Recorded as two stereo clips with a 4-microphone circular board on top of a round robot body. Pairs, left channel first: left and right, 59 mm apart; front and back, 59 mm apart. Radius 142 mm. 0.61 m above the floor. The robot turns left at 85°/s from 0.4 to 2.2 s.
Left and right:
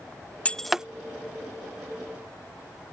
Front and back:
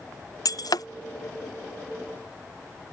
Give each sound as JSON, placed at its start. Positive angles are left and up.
{"t": 0.5, "sound": "breaking glass", "azimuth_deg": 20}